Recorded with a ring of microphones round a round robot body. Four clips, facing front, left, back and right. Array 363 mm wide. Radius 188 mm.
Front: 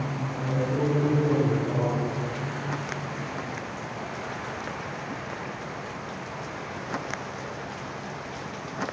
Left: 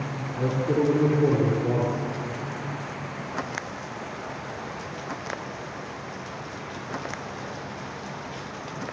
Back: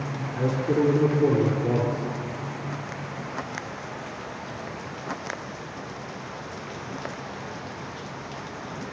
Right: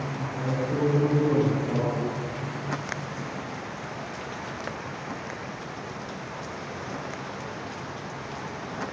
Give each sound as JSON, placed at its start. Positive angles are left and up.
{"t": 0.3, "sound": "a man speaking", "azimuth_deg": 145, "distance_m": 5.5}